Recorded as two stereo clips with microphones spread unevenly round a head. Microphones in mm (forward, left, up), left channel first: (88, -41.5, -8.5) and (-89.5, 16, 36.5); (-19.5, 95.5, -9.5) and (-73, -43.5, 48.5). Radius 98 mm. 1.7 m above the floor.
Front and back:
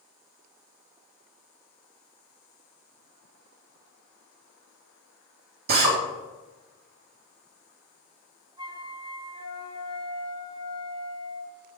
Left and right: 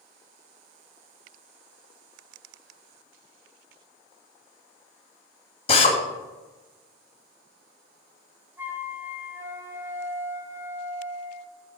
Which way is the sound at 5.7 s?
125° left.